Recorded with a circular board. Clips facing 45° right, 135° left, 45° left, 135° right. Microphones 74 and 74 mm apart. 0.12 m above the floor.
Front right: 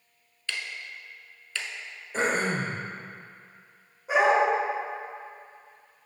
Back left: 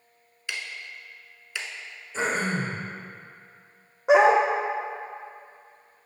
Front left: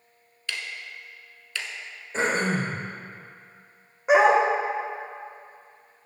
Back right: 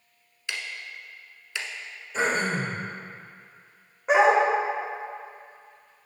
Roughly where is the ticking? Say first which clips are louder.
Even, even; behind.